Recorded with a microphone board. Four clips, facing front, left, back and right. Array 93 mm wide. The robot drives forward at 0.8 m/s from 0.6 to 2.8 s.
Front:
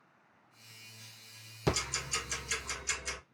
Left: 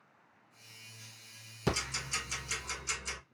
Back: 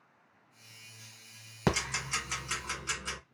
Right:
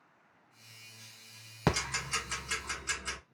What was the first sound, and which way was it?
Ticking, 135° right.